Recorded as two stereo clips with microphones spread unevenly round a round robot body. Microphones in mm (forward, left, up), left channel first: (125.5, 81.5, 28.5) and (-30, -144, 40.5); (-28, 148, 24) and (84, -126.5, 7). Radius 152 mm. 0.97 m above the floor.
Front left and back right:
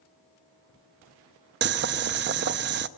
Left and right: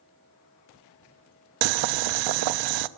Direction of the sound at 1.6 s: 75° right.